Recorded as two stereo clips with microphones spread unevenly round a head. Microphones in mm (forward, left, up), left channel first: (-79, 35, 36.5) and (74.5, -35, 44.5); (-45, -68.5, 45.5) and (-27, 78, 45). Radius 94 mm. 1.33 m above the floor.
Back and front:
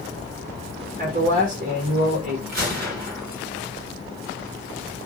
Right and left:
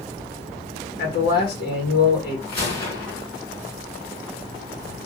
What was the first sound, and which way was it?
A man speaking, 70° right.